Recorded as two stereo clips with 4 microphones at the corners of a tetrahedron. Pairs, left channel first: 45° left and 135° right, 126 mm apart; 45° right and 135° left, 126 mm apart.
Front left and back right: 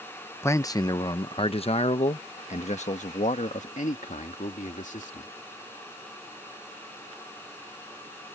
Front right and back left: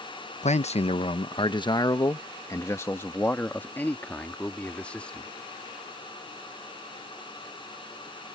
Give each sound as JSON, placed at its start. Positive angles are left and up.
{"t": 0.4, "sound": "a man speaking", "azimuth_deg": -25}